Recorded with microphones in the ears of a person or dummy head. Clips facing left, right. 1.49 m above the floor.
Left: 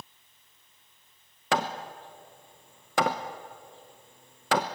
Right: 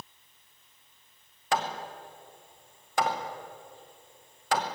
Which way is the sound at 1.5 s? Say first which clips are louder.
Left 1 dB; 50° left (ahead or behind).